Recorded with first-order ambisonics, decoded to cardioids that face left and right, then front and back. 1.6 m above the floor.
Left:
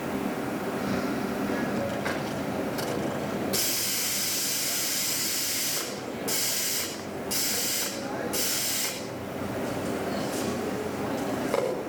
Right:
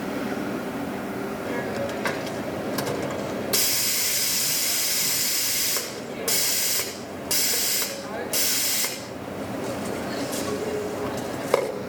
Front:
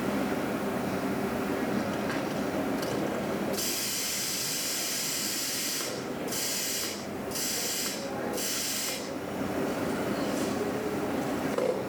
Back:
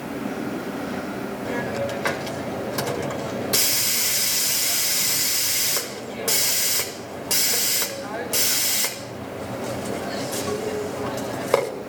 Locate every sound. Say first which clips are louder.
1.4 s a hiss: right 4 dB, back 5 dB; 150° right, 8 m